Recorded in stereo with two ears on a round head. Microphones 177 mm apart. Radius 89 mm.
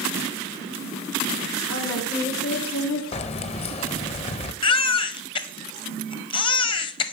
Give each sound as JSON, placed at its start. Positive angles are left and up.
{"t": 1.7, "sound": "a woman speaking", "side_deg": 80, "distance_m": 3.5}
{"t": 3.1, "sound": "keys jangling", "side_deg": 30, "distance_m": 0.7}
{"t": 4.6, "sound": "a baby crying", "side_deg": 25, "distance_m": 0.7}